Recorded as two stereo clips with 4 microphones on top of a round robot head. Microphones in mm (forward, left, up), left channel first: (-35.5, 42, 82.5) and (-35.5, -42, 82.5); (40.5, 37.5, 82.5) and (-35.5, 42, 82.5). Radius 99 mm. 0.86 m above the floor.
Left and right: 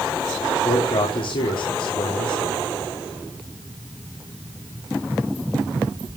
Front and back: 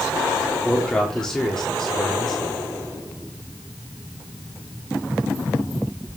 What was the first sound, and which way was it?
A man speaking, 75° left.